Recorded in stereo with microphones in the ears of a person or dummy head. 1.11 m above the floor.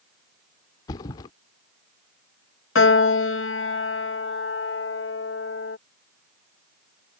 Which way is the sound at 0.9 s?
20° left (ahead or behind).